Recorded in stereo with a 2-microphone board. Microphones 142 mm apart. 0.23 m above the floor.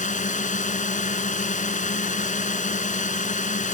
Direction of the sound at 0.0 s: 60° left (ahead or behind).